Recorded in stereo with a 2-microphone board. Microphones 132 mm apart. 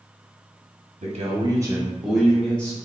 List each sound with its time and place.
1.0 s a man speaking: 60° right (ahead or behind), 1.0 m; by 2.8 s 10° left (ahead or behind), 2.0 m